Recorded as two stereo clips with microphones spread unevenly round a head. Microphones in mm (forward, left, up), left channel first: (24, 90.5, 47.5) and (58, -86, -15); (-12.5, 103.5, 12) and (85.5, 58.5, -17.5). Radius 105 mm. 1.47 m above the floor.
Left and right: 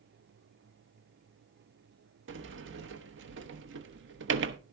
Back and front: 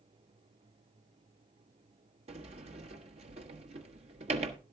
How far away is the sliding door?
About 1.0 m.